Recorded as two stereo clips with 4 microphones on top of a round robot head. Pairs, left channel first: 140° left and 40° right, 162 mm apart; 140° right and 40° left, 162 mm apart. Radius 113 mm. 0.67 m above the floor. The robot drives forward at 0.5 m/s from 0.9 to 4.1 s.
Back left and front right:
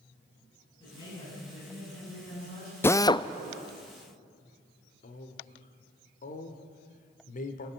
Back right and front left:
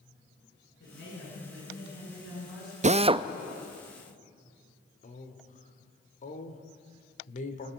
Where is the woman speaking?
165° right, 9 m.